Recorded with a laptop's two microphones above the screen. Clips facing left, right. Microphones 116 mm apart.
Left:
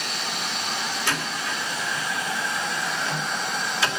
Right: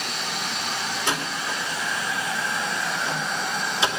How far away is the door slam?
About 2.5 m.